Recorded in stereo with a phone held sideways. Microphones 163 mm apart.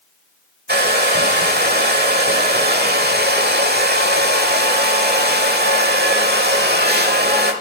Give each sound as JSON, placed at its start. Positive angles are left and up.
{"t": 0.7, "sound": "a hair dryer", "side_deg": -75, "distance_m": 1.3}